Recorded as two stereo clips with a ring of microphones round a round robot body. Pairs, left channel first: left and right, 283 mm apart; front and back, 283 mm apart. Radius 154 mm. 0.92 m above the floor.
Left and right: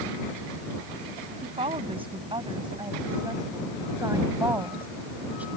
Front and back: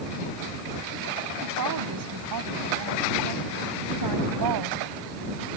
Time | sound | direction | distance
1.4 | a woman speaking | 160° right | ?